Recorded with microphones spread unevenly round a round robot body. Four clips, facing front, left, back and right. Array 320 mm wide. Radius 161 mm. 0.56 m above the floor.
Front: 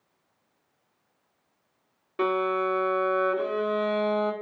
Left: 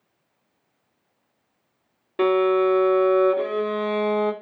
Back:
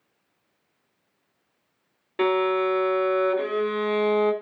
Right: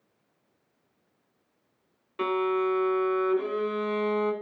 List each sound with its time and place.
2.2 s a violin: 110° left, 2 m